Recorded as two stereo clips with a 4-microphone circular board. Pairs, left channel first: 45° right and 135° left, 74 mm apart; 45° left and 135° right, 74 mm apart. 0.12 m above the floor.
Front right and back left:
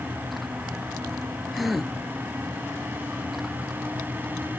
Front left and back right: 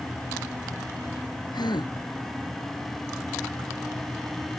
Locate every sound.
1.5 s a gasp: 45° left